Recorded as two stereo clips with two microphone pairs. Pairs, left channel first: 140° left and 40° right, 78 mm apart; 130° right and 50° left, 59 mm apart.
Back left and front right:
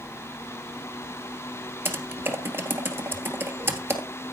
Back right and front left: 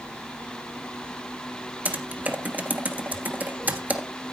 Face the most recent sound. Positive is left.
turn(degrees=5)